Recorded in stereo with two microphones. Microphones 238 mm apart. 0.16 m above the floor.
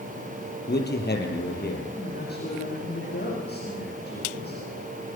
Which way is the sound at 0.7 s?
45° left (ahead or behind).